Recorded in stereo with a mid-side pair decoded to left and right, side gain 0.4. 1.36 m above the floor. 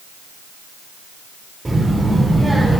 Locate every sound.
1.6 s a child speaking: 20° right, 4 m; by 2.8 s 5° right, 3.5 m